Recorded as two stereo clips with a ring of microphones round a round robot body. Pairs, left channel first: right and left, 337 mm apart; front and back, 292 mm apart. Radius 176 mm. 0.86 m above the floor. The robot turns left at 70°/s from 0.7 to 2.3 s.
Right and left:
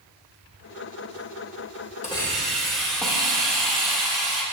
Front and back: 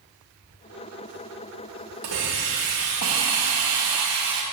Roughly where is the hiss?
Behind.